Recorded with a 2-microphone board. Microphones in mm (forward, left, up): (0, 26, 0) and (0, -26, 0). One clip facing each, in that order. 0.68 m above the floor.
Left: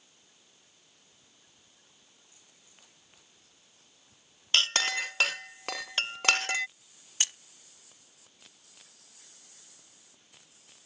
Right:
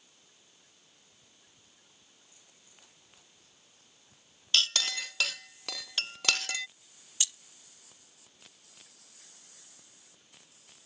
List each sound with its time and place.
4.5 s a clink: 40° left (ahead or behind)
7.2 s keys jangling: 50° left (ahead or behind)